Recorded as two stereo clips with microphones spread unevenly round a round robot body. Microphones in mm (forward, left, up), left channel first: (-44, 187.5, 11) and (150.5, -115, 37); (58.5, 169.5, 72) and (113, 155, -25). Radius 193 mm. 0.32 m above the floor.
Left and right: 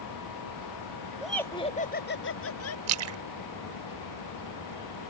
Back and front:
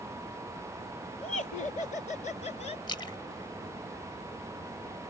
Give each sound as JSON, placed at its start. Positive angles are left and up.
{"t": 1.2, "sound": "laughter", "azimuth_deg": -150}
{"t": 2.9, "sound": "a splash", "azimuth_deg": -80}